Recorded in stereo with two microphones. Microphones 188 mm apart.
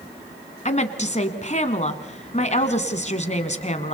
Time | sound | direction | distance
0.7 | a woman speaking | 40° left (ahead or behind) | 1.8 m